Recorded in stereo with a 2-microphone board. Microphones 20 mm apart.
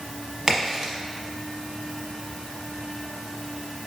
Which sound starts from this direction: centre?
A crack, at 0.5 s.